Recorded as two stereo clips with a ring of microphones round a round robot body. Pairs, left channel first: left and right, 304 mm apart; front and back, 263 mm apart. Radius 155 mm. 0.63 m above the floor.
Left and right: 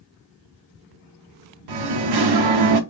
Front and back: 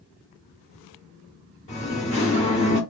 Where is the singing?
70° right, 0.6 m.